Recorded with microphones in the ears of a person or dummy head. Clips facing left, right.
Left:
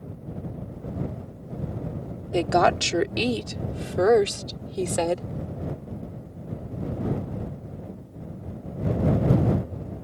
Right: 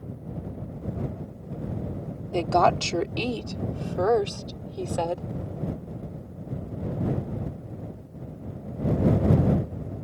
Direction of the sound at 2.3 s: 15° left (ahead or behind).